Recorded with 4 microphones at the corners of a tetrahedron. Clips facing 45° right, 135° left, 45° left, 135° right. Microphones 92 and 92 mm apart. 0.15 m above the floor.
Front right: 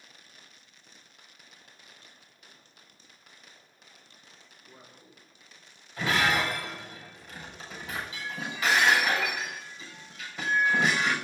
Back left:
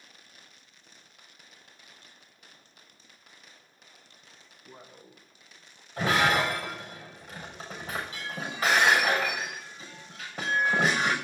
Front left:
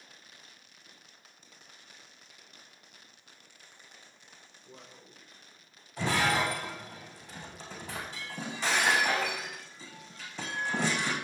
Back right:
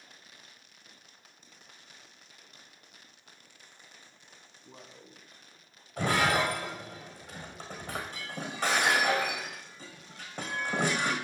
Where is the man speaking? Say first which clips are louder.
Back left 5 dB, back right 2 dB; straight behind, 5 m; by 5.9 s 165° right, 5 m.